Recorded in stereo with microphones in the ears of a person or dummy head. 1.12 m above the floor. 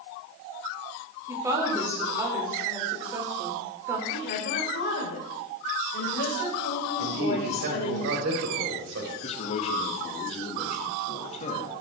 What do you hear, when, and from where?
1.3 s a woman speaking: 15° right (ahead or behind), 3 m
4.1 s a woman speaking: 65° left (ahead or behind), 4 m
7.0 s a man speaking: 70° right (ahead or behind), 4.5 m
9.2 s a man speaking: 40° left (ahead or behind), 2 m